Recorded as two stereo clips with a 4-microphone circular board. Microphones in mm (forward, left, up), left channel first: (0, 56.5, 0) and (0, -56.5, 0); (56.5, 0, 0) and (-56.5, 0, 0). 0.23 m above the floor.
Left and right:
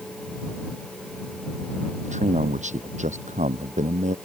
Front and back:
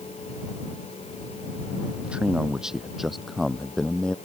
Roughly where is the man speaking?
Right.